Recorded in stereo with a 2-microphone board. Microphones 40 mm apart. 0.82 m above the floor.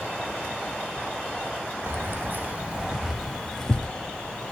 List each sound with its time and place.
1.9 s keys jangling: 65° right (ahead or behind), 0.8 m; by 4.5 s 25° left (ahead or behind), 1.3 m